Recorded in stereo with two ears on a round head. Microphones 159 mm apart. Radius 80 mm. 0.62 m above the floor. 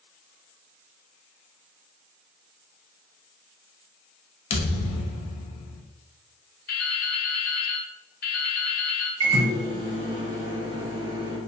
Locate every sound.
4.5 s a thud: 35° left (ahead or behind), 0.5 m
6.7 s dripping: 55° left (ahead or behind), 0.5 m
9.2 s a microwave: 25° right (ahead or behind), 0.7 m